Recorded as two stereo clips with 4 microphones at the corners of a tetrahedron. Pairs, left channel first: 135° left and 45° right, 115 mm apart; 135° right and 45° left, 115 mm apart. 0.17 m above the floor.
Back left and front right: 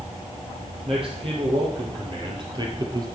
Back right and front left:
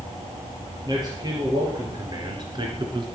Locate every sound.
0.8 s a man speaking: 10° right, 4 m; by 3.1 s 5° left, 1.8 m